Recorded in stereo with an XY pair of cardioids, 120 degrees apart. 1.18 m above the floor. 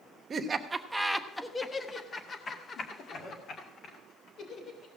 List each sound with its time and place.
0.3 s laughter: 40° right, 1.1 m; by 4.9 s 55° left, 4 m